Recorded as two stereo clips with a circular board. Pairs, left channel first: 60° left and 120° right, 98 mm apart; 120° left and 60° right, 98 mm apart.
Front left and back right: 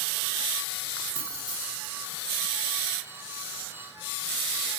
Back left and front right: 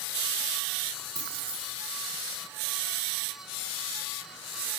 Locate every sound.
1.1 s keys jangling: 5° left, 4 m